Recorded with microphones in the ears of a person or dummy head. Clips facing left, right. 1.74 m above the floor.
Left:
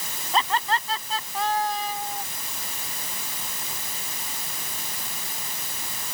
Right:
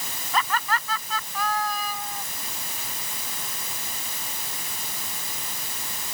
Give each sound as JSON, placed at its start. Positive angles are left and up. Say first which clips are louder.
{"t": 0.3, "sound": "laughter", "louder": "left 2 dB", "side_deg": 20}